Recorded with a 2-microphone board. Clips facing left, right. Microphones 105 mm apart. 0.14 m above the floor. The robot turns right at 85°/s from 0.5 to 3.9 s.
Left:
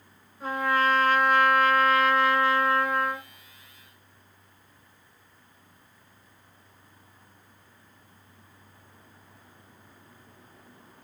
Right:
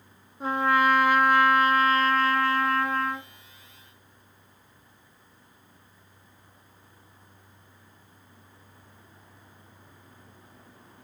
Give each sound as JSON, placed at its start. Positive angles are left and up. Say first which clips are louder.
{"t": 0.4, "sound": "a trumpet", "louder": "right 2 dB", "side_deg": -25, "distance_m": 1.2}